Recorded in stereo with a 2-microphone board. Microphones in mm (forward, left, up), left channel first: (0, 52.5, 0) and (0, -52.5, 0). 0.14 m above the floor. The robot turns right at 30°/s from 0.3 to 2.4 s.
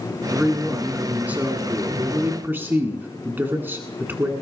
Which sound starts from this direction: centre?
A man speaking, at 0.3 s.